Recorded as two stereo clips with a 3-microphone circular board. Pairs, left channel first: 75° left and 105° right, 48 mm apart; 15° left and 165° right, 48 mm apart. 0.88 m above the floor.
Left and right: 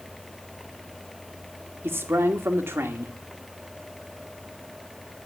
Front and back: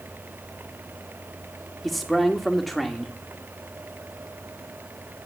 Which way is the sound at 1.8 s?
75° right.